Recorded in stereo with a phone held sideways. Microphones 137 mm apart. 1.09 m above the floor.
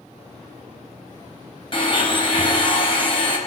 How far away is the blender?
About 4 m.